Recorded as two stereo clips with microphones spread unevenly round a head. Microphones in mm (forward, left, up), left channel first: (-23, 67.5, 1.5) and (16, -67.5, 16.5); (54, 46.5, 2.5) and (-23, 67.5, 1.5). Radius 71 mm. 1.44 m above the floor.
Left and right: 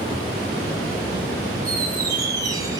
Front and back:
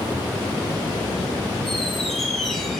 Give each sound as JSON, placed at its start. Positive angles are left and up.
{"t": 1.6, "sound": "a squeak", "azimuth_deg": -100, "distance_m": 0.6}